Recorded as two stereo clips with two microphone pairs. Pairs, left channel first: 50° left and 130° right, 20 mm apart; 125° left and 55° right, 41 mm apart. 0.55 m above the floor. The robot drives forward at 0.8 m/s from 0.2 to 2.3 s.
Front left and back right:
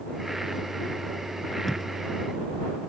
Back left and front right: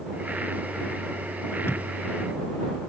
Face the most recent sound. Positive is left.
turn(degrees=135)